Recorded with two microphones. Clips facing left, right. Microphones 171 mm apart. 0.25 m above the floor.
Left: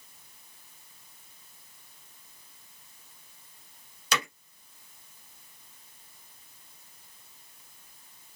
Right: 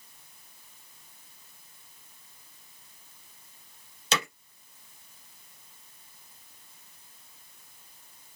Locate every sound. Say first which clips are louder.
4.1 s hammering: right 1 dB; 25° right (ahead or behind), 2.5 m